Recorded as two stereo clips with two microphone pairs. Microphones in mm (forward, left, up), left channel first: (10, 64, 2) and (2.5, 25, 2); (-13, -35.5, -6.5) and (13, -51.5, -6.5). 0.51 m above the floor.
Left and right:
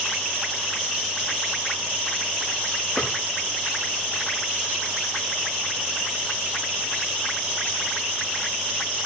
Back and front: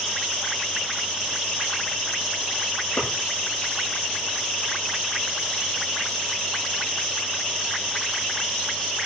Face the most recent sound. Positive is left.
turn(degrees=150)